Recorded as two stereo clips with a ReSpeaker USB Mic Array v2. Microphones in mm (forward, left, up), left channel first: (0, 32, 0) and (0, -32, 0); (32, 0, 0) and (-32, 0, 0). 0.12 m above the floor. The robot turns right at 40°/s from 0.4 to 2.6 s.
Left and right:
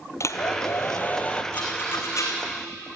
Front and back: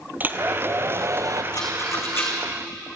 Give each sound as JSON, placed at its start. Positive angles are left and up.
{"t": 0.2, "sound": "a hair dryer", "azimuth_deg": 125, "distance_m": 1.3}
{"t": 1.5, "sound": "a rattle", "azimuth_deg": 25, "distance_m": 4.0}